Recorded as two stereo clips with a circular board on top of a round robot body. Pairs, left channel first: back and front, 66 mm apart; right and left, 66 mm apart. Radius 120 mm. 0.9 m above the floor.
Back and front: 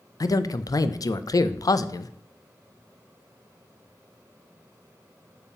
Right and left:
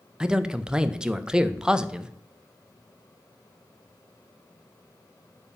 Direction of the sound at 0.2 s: 165° left.